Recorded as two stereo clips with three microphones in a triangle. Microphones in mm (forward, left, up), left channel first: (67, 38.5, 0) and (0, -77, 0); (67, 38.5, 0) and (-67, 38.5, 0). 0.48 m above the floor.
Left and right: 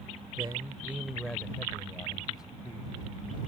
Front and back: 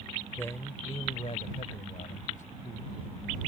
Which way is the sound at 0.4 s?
75° right.